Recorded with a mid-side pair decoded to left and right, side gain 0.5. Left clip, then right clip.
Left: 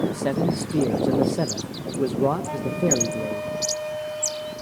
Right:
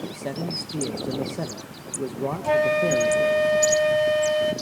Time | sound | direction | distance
0.1 | a man speaking | 40° left | 1.2 m
2.4 | a flute | 60° right | 1.9 m